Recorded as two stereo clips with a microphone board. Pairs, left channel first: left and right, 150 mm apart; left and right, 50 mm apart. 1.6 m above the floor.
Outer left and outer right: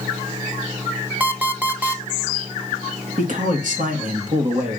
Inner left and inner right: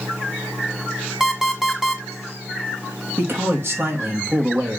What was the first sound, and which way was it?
An alarm clock, 10° right (ahead or behind).